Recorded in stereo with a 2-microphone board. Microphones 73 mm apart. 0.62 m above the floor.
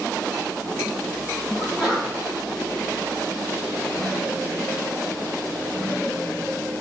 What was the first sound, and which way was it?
A sneeze, 5° right (ahead or behind).